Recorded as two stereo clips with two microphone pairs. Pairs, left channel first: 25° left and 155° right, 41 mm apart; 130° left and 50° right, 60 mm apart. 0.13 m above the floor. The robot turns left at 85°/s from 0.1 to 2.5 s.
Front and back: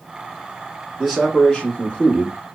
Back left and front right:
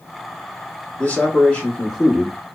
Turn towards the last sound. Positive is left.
turn(degrees=-5)